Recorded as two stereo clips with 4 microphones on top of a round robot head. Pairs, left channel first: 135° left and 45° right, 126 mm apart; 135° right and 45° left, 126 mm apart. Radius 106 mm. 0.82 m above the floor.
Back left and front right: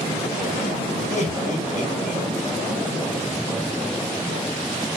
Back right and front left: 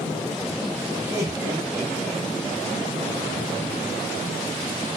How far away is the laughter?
About 3 m.